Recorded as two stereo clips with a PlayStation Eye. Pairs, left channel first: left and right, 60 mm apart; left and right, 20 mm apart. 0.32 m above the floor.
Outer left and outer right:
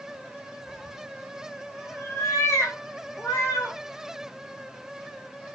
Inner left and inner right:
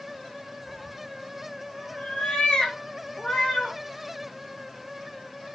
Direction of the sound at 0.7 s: 20° left (ahead or behind).